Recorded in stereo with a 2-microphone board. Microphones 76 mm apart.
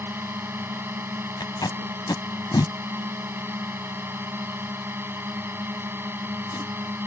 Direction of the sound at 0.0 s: 30° right (ahead or behind).